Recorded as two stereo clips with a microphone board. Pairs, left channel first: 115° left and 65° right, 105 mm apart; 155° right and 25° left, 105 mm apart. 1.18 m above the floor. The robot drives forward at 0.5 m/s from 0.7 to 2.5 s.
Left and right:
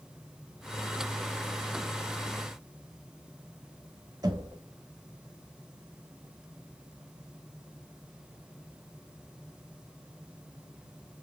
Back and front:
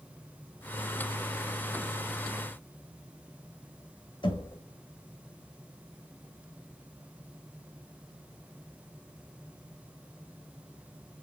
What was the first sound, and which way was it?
Knocking, 120° right.